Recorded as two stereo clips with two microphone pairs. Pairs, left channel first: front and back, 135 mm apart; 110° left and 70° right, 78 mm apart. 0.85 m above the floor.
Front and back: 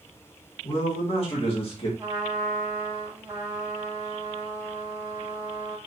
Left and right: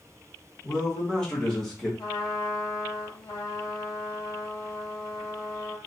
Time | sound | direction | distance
0.6 | a man speaking | 35° left | 1.9 m
2.0 | a trumpet | 110° left | 1.8 m